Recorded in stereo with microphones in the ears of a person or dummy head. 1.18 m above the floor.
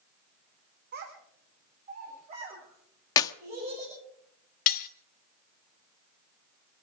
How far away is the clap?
About 0.7 m.